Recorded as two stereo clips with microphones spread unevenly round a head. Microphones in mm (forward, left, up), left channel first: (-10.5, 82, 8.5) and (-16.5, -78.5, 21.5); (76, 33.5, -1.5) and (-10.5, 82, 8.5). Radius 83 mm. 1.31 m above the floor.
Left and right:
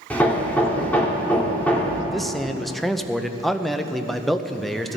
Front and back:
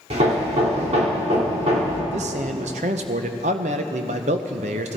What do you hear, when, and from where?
0.1 s hammering: 170° left, 1.7 m
2.1 s a man speaking: 175° left, 0.6 m